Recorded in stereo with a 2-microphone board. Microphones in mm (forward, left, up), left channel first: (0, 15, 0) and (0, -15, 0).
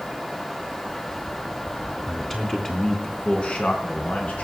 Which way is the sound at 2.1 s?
5° left (ahead or behind).